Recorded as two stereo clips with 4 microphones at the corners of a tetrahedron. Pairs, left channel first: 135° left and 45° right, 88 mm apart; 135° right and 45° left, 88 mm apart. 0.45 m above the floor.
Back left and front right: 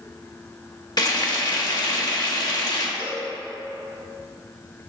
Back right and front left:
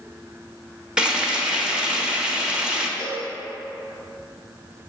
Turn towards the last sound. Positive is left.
turn(degrees=150)